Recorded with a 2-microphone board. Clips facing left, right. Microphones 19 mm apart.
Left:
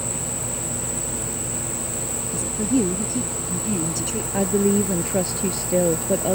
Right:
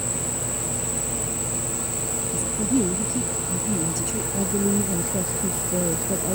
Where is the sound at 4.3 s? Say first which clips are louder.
Left 5 dB; 45° left (ahead or behind).